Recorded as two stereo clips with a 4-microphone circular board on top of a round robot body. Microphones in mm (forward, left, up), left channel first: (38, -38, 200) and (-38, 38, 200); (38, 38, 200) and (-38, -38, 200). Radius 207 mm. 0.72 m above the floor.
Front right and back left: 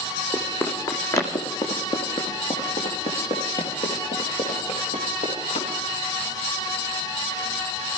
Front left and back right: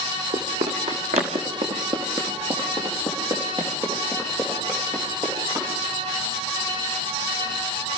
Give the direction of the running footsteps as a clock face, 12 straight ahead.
4 o'clock.